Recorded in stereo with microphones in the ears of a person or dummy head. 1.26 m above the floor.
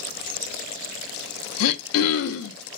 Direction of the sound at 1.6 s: 75° left (ahead or behind).